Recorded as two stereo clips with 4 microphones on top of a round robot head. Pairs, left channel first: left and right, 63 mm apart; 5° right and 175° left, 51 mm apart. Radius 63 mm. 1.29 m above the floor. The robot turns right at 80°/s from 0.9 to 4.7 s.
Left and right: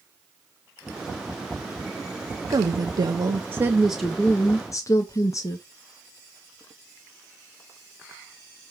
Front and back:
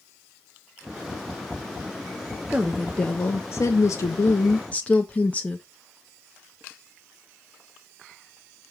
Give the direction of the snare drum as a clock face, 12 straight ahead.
I don't hear a snare drum.